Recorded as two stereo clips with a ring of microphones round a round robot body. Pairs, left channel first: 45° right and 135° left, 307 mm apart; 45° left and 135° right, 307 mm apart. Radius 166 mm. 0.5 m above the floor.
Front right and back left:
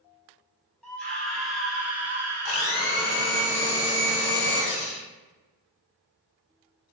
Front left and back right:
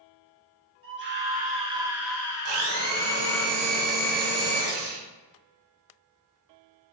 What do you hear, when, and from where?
0.8 s a scream: 130° right, 1.6 m; by 3.5 s 65° left, 1.7 m
2.5 s a blender: 90° right, 1.1 m